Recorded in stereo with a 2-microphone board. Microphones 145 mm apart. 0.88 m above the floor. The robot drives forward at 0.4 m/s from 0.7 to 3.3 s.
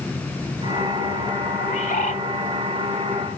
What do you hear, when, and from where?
1.6 s a bird: 60° left (ahead or behind), 1.2 m; by 2.2 s 65° left (ahead or behind), 1.2 m